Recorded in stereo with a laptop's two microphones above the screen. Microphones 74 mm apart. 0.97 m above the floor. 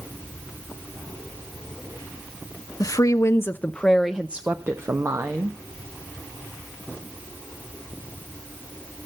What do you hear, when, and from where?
2.8 s a woman speaking: 55° left (ahead or behind), 0.7 m; by 5.6 s 45° right (ahead or behind), 1.1 m